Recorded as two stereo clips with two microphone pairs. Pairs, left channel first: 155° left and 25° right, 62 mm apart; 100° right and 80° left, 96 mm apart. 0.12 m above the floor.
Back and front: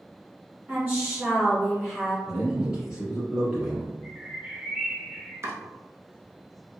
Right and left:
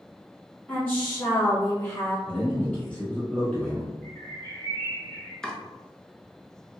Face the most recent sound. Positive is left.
turn(degrees=-20)